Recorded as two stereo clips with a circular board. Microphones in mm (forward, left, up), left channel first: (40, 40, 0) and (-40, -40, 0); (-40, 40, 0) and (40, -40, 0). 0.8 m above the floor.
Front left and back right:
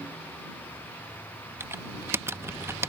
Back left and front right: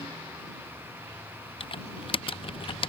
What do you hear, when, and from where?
1.6 s typing on a keyboard: 160° left